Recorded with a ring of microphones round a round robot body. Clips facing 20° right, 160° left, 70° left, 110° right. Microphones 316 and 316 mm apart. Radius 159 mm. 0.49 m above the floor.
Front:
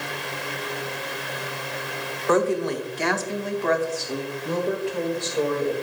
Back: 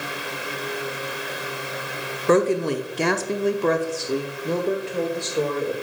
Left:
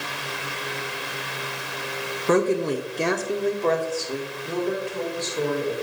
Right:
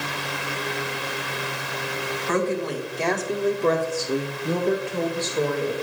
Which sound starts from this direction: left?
A woman speaking, at 2.3 s.